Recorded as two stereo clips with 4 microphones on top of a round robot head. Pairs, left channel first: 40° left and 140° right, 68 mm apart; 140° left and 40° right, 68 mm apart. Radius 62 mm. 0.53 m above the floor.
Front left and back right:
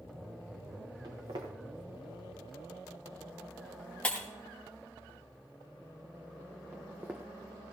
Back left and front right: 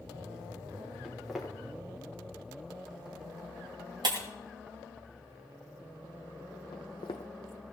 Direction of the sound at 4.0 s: 30° right.